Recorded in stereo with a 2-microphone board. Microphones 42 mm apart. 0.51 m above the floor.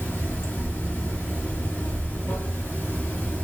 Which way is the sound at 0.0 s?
55° left (ahead or behind).